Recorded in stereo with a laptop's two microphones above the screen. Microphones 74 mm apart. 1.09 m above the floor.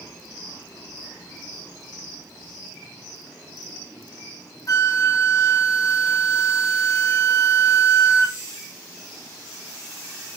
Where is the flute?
50° left (ahead or behind), 0.6 m.